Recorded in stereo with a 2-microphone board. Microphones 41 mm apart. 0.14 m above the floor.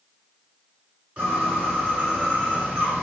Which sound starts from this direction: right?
A bird, at 1.2 s.